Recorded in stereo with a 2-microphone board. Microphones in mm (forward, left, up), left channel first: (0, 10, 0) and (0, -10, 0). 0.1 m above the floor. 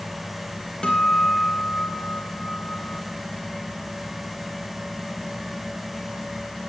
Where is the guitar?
40° left (ahead or behind), 3 m.